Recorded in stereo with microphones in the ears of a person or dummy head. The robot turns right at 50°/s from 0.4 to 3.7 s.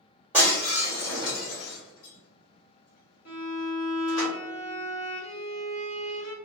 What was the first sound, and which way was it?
Breaking glass, 10° right (ahead or behind).